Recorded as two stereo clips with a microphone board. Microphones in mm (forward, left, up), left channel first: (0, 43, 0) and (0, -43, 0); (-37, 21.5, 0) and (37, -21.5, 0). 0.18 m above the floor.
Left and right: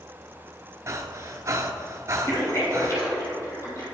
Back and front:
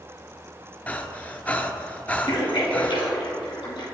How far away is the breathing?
About 0.6 m.